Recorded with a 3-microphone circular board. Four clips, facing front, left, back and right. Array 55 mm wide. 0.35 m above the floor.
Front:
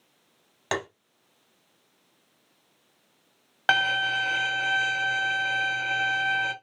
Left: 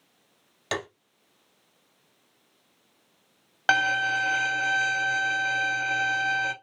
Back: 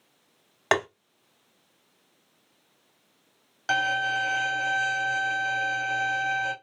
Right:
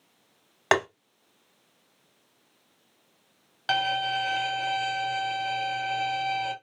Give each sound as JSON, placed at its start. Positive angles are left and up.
{"t": 0.7, "sound": "tapping", "azimuth_deg": -125, "distance_m": 0.9}
{"t": 3.7, "sound": "a violin", "azimuth_deg": 40, "distance_m": 1.3}